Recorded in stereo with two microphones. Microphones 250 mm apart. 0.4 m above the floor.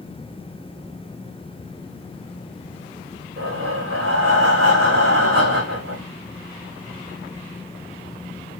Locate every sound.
3.4 s breathing: 55° right (ahead or behind), 10 m